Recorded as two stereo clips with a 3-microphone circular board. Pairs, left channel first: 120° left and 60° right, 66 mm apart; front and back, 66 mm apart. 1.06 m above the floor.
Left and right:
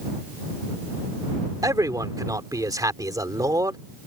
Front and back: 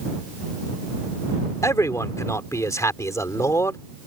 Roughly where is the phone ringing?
I don't hear a phone ringing.